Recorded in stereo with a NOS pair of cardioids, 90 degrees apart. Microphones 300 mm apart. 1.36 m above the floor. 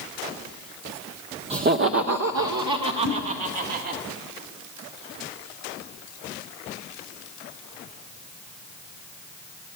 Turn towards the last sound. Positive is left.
turn(degrees=-70)